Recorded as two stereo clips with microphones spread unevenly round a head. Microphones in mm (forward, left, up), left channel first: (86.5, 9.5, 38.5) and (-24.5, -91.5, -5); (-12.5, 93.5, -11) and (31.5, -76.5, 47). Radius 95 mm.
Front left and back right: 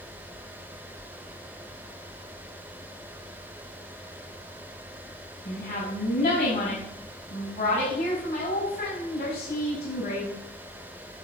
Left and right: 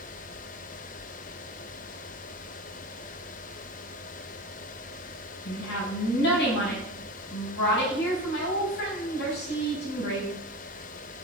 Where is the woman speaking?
85° left, 5.5 m.